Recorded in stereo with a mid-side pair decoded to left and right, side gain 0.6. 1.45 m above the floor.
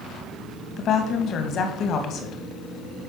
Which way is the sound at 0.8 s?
50° left.